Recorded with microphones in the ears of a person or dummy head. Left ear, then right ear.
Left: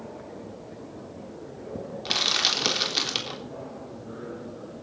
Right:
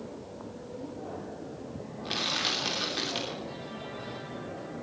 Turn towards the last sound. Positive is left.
turn(degrees=35)  # may be behind; listen again after turning